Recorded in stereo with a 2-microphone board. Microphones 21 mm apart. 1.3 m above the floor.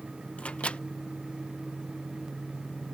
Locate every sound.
0.4 s a microwave: 75° left (ahead or behind)